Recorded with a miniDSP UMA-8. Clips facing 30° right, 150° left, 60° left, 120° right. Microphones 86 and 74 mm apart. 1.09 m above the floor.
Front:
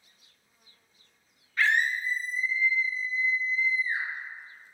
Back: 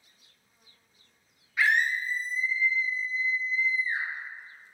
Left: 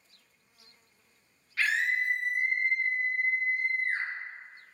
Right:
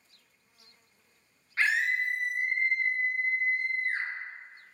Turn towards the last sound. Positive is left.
turn(degrees=75)